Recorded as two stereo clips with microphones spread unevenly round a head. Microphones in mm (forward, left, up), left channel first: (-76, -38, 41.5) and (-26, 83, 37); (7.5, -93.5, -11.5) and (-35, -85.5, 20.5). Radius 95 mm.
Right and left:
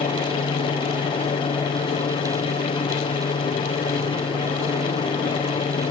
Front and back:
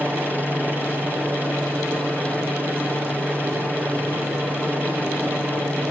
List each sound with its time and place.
0.0 s a helicopter: 110° right